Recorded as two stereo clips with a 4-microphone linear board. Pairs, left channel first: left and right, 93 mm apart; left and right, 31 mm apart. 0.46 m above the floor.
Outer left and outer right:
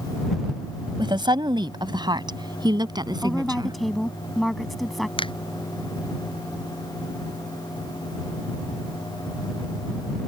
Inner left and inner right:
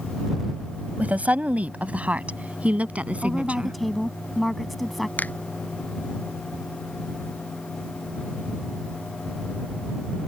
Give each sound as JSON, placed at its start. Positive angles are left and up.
{"t": 1.0, "sound": "a woman speaking", "side_deg": -55}
{"t": 3.2, "sound": "a woman speaking", "side_deg": 0}
{"t": 5.2, "sound": "a finger snap", "side_deg": 70}